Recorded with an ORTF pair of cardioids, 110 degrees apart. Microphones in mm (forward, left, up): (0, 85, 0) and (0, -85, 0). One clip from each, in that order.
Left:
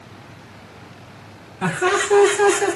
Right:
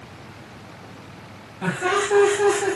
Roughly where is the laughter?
Ahead left.